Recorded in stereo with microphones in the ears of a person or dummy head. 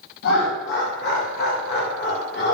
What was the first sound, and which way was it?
Laughter, 60° left (ahead or behind).